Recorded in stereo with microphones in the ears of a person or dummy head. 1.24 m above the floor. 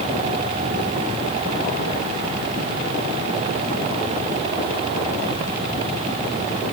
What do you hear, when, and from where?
Only background noise.